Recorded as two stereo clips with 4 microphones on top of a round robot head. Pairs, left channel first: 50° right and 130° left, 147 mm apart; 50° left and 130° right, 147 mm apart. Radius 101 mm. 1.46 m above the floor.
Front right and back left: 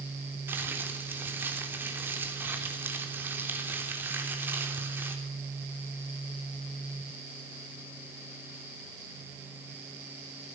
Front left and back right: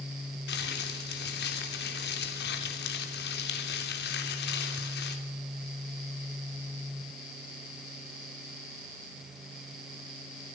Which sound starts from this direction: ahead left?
Crumpling, at 0.5 s.